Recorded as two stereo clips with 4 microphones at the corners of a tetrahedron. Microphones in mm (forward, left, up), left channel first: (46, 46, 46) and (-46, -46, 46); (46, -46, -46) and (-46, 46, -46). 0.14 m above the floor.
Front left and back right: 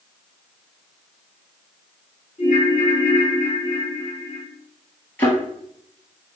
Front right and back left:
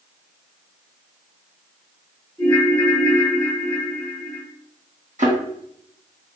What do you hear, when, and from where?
2.4 s a ringtone: 35° left, 1.4 m
5.2 s a thud: 120° left, 1.6 m